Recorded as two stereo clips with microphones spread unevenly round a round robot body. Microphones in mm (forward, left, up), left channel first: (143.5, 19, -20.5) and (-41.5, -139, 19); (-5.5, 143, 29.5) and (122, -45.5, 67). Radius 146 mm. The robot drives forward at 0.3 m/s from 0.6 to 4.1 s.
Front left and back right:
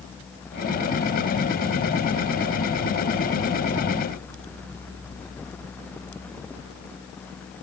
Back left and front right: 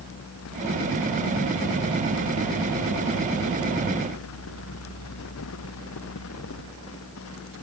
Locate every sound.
Only background noise.